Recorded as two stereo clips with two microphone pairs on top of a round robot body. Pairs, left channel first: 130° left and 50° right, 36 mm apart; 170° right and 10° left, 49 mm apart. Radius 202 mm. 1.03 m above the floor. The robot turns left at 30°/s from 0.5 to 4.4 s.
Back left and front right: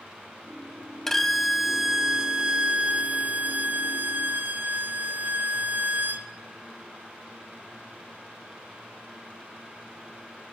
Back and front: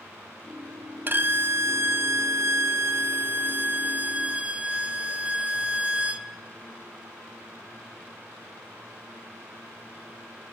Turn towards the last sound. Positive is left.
turn(degrees=-55)